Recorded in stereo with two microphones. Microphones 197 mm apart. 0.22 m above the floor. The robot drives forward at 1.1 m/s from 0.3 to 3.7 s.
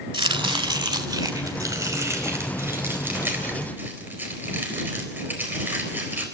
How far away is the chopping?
About 1.8 m.